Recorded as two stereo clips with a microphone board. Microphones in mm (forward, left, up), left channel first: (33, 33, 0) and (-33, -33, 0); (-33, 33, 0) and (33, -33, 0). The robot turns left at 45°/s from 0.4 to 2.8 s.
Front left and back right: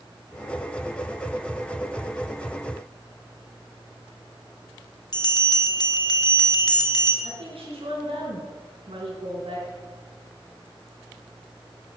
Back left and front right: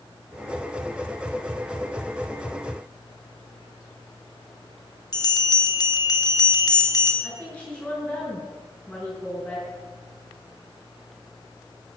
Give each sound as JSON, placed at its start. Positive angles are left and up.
{"t": 5.1, "sound": "a bell", "azimuth_deg": 90, "distance_m": 1.3}
{"t": 7.2, "sound": "a woman speaking", "azimuth_deg": -135, "distance_m": 4.5}